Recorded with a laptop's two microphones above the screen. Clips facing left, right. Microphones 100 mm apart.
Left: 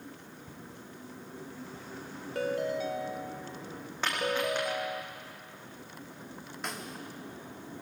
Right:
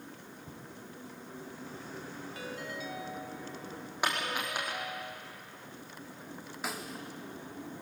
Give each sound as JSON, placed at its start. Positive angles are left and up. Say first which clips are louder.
{"t": 0.5, "sound": "footsteps", "louder": "even", "side_deg": -15, "distance_m": 5.0}
{"t": 2.4, "sound": "a ringtone", "louder": "left 13 dB", "side_deg": 60, "distance_m": 1.0}
{"t": 4.0, "sound": "a dropped coin", "louder": "left 4 dB", "side_deg": -15, "distance_m": 6.5}
{"t": 6.6, "sound": "a snare drum", "louder": "right 1 dB", "side_deg": -5, "distance_m": 0.9}